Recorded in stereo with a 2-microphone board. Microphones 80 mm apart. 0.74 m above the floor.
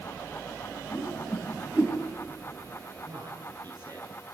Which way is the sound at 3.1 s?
55° right (ahead or behind).